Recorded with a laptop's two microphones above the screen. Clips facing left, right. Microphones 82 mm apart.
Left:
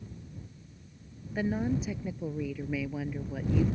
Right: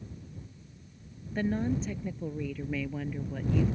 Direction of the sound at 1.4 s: 5° left (ahead or behind).